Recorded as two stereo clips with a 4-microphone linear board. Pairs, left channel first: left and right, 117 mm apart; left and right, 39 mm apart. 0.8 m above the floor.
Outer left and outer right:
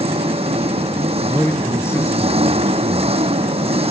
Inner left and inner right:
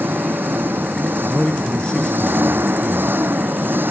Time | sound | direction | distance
0.0 | an engine running | 60° right (ahead or behind) | ?
1.3 | a man speaking | 20° left (ahead or behind) | ?